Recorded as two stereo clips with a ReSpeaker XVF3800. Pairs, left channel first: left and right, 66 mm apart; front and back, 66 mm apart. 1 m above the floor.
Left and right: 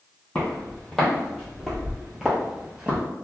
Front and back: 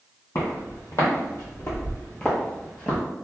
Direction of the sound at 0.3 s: 10° left.